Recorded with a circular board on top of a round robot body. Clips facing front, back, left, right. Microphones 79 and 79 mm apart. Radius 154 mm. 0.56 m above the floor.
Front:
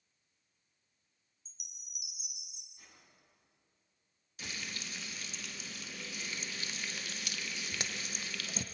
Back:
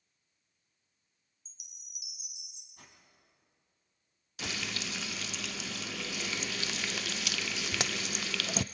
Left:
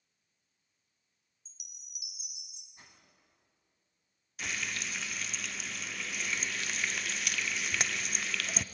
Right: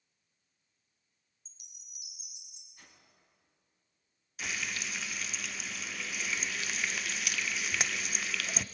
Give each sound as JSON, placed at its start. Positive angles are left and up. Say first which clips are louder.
{"t": 1.4, "sound": "a chime", "louder": "front 2 dB, left 3 dB", "azimuth_deg": -30, "distance_m": 3.0}
{"t": 2.8, "sound": "a whoosh", "louder": "back 4 dB, left 1 dB", "azimuth_deg": 160, "distance_m": 4.0}
{"t": 4.4, "sound": "frying", "louder": "back 6 dB, even", "azimuth_deg": 180, "distance_m": 0.6}